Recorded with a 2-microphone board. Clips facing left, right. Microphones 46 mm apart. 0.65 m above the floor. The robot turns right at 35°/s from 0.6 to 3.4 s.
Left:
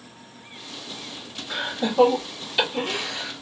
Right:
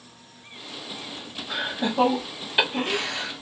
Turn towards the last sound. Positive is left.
turn(degrees=-45)  # may be behind; listen again after turning